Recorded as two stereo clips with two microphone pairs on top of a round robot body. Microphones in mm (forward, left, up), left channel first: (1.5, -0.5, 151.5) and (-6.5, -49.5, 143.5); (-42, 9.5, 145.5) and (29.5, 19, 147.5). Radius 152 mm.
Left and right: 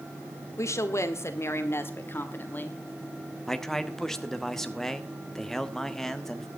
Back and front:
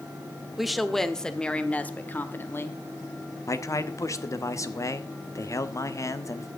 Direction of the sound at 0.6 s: 95° left.